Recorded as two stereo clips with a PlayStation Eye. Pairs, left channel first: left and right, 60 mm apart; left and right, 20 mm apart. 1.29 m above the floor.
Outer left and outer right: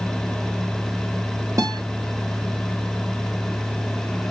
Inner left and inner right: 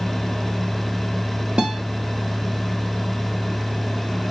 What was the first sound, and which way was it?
A guitar, 65° right (ahead or behind).